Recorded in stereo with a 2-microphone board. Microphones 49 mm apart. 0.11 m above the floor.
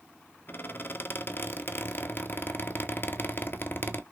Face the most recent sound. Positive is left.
turn(degrees=45)  # may be behind; listen again after turning